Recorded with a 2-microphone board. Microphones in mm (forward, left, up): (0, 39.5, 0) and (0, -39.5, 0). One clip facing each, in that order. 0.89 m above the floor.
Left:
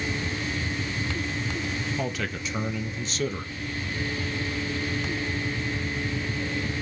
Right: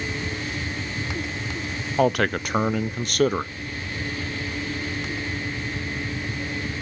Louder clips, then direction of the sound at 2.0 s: Right 10 dB; 60° right (ahead or behind).